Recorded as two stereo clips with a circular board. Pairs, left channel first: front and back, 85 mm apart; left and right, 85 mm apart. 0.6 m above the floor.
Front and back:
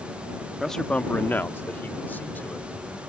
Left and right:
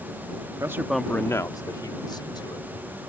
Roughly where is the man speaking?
Right.